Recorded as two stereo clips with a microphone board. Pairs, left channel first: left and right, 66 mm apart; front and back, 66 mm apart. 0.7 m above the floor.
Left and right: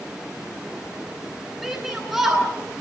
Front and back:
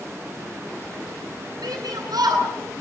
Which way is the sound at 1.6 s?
175° right.